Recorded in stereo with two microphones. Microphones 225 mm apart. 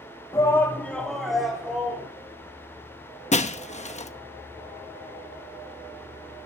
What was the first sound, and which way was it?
A shout, 15° left (ahead or behind).